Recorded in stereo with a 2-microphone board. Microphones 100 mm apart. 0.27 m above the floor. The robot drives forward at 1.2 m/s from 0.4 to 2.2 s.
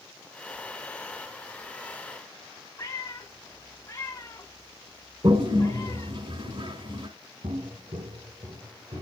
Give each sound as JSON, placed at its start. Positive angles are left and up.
{"t": 2.8, "sound": "a cat meowing", "side_deg": 30, "distance_m": 3.0}
{"t": 5.2, "sound": "a toilet flushing", "side_deg": -60, "distance_m": 1.0}
{"t": 7.4, "sound": "footsteps", "side_deg": -75, "distance_m": 0.9}